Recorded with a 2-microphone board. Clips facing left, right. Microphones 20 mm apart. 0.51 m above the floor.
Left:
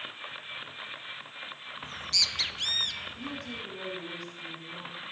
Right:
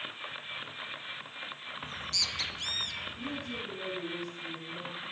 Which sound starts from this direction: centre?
A bird, at 1.8 s.